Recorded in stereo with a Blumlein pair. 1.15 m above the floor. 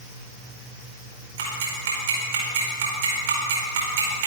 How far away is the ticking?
About 4.5 m.